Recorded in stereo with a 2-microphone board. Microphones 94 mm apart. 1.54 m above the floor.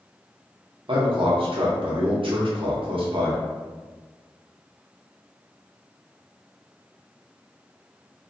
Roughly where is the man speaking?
Right.